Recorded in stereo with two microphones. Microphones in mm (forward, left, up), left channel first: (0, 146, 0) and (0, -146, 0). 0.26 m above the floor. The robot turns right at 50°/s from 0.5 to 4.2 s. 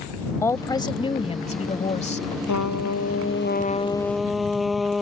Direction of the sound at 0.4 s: 10° left (ahead or behind).